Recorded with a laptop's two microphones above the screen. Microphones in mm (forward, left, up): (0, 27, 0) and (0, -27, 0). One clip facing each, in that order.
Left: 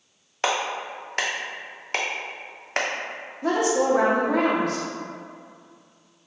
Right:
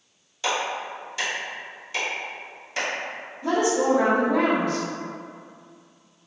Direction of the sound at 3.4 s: 75° left (ahead or behind).